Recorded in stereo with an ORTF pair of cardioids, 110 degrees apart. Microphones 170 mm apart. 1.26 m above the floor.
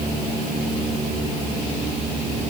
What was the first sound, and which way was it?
Only background noise.